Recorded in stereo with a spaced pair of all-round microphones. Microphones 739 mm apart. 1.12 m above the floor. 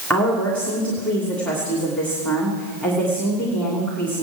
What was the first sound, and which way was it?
A woman speaking, centre (ahead or behind).